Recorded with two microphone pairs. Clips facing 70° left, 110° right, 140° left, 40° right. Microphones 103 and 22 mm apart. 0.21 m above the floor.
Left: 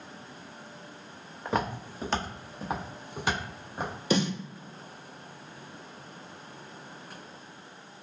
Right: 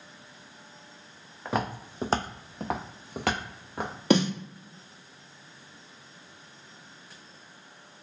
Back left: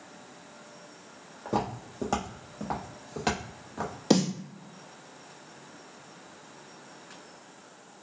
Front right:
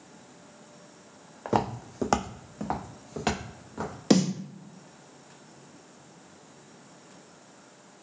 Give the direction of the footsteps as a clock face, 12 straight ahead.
1 o'clock.